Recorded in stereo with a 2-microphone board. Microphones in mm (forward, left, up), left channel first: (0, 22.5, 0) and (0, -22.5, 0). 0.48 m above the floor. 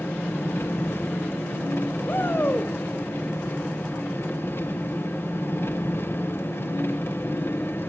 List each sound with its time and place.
0.0 s an engine running: 60° left (ahead or behind), 1.3 m
2.1 s a shout: 55° left (ahead or behind), 2 m